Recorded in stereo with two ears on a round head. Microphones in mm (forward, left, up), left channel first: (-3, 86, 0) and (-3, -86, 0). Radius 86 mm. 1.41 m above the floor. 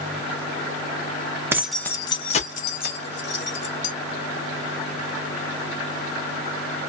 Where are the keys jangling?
15° right (ahead or behind), 0.6 m; by 3.9 s 65° left (ahead or behind), 1.6 m.